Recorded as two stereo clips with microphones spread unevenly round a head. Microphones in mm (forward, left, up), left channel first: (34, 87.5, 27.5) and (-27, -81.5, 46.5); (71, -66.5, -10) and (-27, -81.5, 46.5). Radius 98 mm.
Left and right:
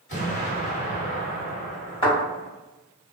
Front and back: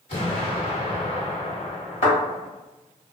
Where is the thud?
20° left, 1.5 m.